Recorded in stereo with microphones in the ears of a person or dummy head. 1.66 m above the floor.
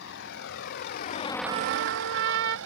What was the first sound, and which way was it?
A vehicle, 70° left (ahead or behind).